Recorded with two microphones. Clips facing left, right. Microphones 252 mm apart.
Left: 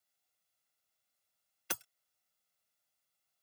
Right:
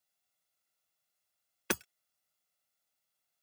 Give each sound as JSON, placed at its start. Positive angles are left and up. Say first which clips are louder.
{"t": 1.7, "sound": "hammering", "louder": "right 11 dB", "side_deg": -75}